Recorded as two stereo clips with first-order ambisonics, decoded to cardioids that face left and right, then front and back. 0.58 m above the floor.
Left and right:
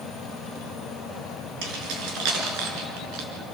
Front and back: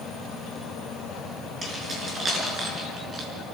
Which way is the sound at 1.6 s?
105° right.